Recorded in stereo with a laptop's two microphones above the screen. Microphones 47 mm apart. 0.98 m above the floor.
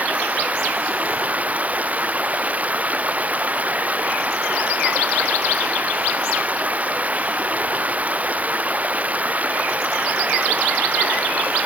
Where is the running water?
30° right (ahead or behind).